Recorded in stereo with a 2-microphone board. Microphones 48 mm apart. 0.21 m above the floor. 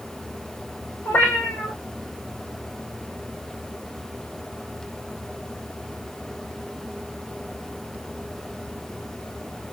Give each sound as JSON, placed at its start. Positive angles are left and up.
{"t": 1.1, "sound": "a cat meowing", "side_deg": 60, "distance_m": 2.5}